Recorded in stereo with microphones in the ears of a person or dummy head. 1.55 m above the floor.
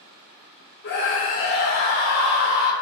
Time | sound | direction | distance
0.8 | a scream | 50° left (ahead or behind) | 0.8 m